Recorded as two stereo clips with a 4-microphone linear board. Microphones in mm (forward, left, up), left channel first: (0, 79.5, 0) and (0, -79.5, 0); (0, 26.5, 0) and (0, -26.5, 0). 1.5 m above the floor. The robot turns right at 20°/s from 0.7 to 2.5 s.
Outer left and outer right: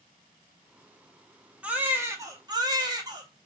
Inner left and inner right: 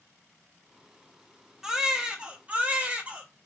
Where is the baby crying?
10° right (ahead or behind), 0.8 m; by 3.3 s 25° right (ahead or behind), 0.8 m.